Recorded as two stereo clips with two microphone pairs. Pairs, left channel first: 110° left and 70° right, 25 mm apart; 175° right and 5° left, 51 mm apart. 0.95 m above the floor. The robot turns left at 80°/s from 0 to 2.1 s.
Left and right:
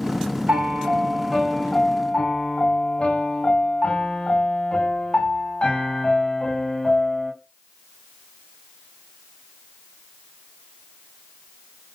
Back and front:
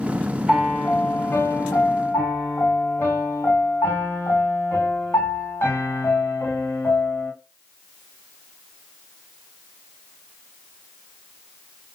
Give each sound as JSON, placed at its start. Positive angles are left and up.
{"t": 0.5, "sound": "a piano", "azimuth_deg": -80, "distance_m": 2.5}